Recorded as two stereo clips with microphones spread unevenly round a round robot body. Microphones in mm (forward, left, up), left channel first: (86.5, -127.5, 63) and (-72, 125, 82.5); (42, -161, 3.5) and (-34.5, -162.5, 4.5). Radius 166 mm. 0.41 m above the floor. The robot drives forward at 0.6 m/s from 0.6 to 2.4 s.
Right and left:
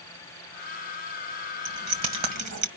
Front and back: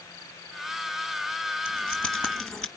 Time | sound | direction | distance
1.6 | keys jangling | 80° left | 1.9 m